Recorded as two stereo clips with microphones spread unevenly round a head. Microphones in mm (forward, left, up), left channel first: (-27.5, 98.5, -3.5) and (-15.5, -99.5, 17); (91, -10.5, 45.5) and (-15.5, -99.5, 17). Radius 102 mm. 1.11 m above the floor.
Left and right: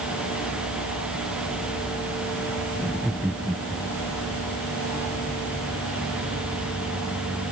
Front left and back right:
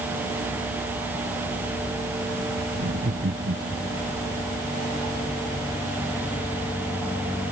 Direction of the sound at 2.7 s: 175° right.